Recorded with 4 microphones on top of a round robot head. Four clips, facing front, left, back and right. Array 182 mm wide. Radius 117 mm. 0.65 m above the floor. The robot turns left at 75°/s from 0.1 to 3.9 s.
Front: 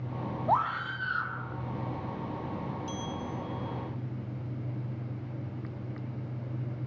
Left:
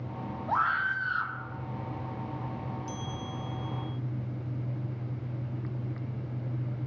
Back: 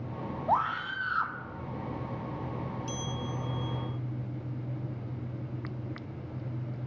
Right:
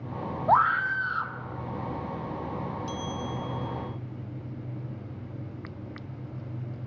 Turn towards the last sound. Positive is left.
turn(degrees=160)